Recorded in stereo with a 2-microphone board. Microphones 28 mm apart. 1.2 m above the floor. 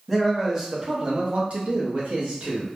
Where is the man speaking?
5° right (ahead or behind), 0.9 m; by 2.7 s 45° right (ahead or behind), 1.1 m.